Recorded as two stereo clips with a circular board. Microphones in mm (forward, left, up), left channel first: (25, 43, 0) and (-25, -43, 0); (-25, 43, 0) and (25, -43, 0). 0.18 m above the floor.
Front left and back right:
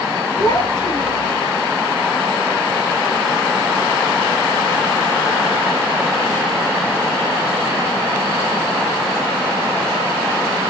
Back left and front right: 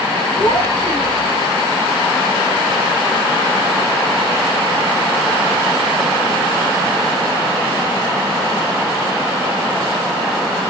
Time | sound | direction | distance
0.4 | a child speaking | 100° left | 1.9 m